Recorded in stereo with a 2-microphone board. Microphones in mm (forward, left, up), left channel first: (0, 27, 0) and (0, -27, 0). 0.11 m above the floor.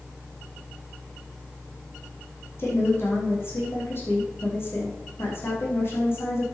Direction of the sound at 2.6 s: 50° left (ahead or behind).